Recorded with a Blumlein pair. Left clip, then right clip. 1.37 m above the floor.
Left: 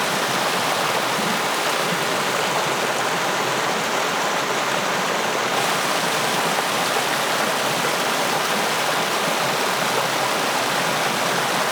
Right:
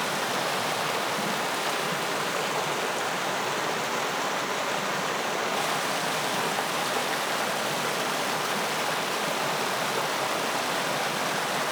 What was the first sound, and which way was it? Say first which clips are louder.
Running water: left 7 dB; 20° left.